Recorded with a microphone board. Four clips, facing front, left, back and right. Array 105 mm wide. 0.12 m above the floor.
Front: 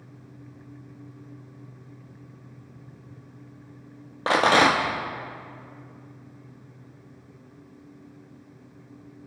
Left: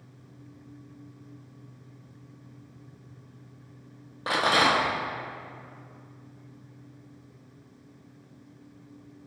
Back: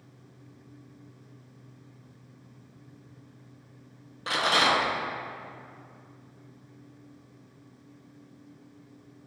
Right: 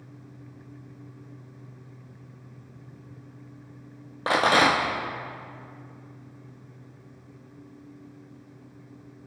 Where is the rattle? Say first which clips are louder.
Right 3 dB, front 6 dB; 25° right, 3 m.